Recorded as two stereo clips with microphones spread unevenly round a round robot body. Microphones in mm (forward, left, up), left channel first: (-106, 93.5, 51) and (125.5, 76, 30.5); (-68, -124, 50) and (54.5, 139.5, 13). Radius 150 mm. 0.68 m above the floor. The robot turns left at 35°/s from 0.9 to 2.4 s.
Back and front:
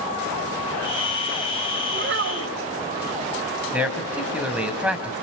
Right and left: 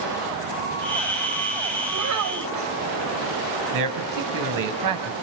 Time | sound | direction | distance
1.9 | a child speaking | 35° left | 2.5 m
3.7 | a man speaking | 80° left | 4 m